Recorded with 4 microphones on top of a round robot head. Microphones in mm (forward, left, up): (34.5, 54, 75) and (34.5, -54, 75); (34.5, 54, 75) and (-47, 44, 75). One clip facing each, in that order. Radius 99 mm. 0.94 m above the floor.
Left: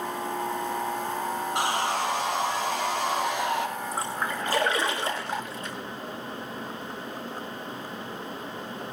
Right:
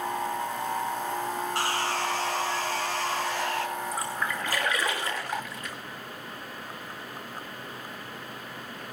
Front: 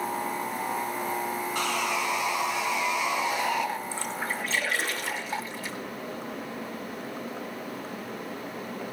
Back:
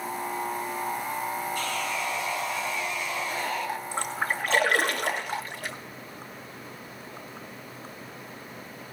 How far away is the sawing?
About 1.8 m.